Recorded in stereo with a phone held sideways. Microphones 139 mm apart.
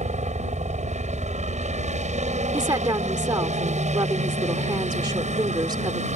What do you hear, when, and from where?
0.0 s a helicopter: 55° right (ahead or behind)
2.5 s a woman speaking: 30° right (ahead or behind)